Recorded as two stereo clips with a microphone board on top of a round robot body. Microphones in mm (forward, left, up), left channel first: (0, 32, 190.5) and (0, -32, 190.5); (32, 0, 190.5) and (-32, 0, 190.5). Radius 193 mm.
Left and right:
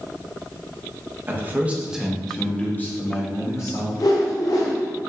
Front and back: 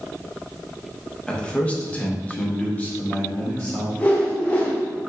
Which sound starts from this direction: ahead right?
A man speaking, at 1.3 s.